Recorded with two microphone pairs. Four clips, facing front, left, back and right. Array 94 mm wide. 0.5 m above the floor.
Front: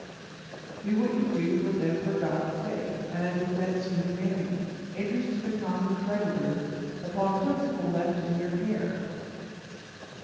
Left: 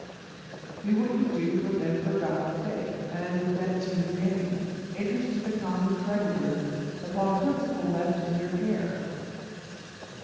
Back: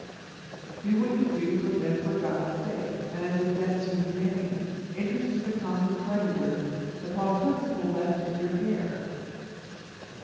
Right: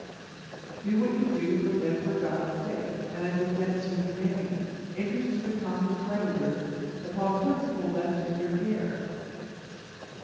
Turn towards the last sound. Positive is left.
turn(degrees=55)